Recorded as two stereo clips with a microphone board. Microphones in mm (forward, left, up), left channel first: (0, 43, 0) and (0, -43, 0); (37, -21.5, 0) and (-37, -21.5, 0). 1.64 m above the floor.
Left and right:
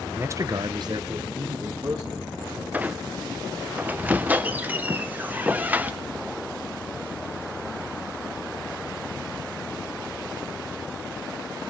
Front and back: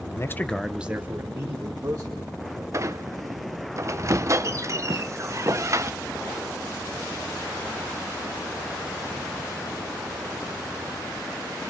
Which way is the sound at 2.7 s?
155° right.